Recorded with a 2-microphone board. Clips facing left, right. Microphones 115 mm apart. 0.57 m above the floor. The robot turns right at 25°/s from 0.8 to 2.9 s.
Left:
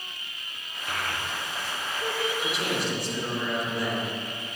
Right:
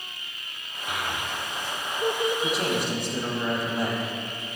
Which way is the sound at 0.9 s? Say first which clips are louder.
Right 1 dB; 5° right (ahead or behind).